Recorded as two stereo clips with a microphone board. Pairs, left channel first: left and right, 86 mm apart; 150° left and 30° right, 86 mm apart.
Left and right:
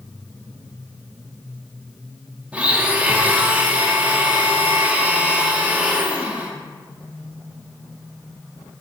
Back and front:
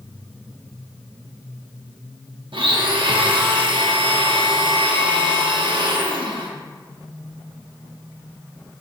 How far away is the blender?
About 0.8 m.